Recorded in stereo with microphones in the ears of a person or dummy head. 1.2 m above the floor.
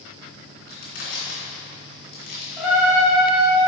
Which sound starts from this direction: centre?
A trumpet, at 2.6 s.